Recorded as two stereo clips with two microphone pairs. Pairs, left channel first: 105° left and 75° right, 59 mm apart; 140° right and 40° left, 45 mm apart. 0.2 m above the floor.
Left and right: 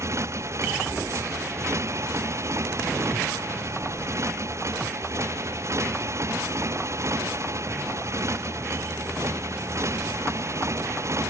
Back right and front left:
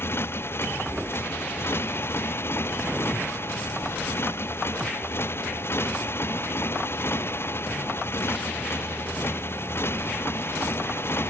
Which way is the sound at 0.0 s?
110° right.